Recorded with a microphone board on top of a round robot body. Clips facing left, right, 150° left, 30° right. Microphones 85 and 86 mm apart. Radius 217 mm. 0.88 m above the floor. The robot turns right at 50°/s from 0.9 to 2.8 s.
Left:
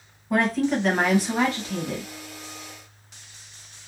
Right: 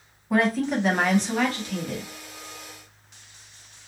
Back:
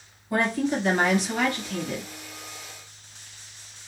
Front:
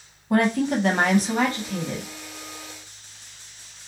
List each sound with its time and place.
0.3 s a woman speaking: 5° right, 1.2 m; by 2.1 s 55° left, 1.2 m